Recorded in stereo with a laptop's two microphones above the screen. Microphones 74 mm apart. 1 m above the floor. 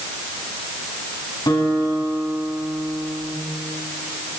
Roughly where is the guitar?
Left.